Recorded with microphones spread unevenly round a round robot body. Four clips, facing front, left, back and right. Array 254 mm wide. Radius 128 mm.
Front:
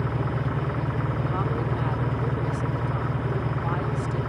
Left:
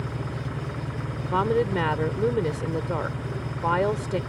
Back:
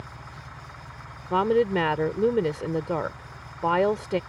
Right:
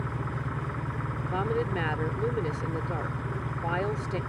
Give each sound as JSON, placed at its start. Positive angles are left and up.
{"t": 0.0, "sound": "an engine running", "azimuth_deg": 5}
{"t": 1.3, "sound": "a woman speaking", "azimuth_deg": 155}